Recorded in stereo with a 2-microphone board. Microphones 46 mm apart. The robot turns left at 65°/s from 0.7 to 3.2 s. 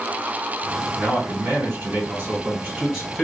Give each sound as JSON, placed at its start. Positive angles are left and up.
{"t": 1.0, "sound": "a man speaking", "azimuth_deg": -35, "distance_m": 1.8}